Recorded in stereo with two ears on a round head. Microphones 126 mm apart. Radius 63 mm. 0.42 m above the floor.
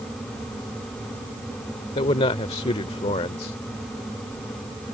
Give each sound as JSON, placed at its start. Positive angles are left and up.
{"t": 1.9, "sound": "a man speaking", "side_deg": 40}